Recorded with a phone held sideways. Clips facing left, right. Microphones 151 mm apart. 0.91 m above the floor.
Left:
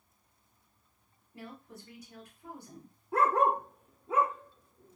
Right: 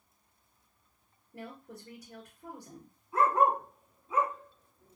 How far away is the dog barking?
About 0.9 m.